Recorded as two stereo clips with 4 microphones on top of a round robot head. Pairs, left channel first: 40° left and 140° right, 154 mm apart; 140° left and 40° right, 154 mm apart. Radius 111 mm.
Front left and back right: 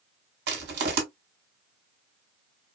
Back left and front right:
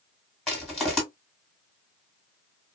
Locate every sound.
0.5 s crushing: 130° right, 1.8 m